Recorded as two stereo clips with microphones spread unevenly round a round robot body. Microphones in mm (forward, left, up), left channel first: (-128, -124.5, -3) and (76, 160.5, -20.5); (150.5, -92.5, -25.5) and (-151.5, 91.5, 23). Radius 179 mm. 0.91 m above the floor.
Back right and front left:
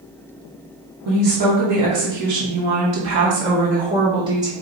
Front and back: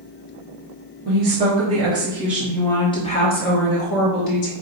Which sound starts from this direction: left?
A woman speaking, at 1.1 s.